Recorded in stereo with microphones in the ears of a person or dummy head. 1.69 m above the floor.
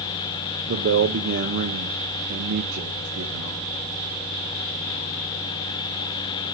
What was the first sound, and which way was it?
A man speaking, 50° right (ahead or behind).